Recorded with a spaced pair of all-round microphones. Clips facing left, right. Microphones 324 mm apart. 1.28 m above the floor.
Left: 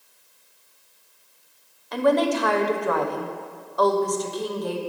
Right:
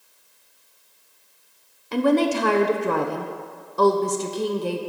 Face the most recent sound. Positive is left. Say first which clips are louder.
# right 2 dB
turn(degrees=-35)  # may be behind; listen again after turning